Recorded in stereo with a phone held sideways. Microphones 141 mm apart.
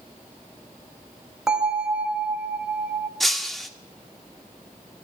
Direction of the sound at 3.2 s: Centre (ahead or behind).